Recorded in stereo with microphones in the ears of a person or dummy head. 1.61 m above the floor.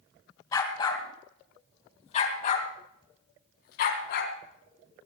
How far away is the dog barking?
About 3 m.